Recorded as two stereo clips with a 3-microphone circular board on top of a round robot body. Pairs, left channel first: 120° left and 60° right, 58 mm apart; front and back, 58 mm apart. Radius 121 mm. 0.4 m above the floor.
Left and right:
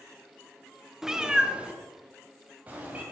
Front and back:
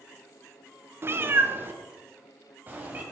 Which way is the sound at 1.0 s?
140° right.